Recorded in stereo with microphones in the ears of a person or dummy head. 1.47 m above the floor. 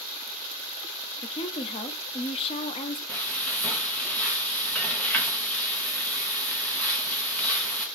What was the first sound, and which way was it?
A woman speaking, 35° left (ahead or behind).